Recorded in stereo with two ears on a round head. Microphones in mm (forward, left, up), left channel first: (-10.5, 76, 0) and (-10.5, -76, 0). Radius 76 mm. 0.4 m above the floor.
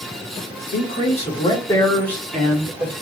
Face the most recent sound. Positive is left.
turn(degrees=-15)  # may be behind; listen again after turning